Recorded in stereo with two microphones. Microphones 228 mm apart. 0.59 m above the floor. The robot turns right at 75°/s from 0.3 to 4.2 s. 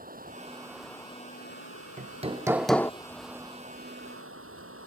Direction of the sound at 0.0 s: 40° right.